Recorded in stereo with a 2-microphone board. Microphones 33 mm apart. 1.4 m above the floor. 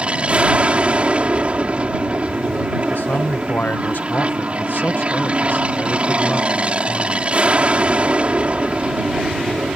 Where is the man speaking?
75° left (ahead or behind).